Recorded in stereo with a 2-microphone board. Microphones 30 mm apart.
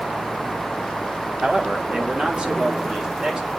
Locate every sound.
1.4 s a man speaking: 40° right (ahead or behind), 1.5 m; by 3.5 s 25° right (ahead or behind), 2 m